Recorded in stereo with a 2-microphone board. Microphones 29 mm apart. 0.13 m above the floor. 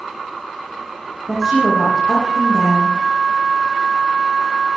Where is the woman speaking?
20° right (ahead or behind), 7 m.